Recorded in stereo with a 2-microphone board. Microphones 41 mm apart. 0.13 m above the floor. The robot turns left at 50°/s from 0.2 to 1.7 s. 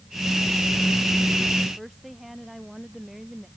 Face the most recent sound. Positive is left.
turn(degrees=-5)  # may be behind; listen again after turning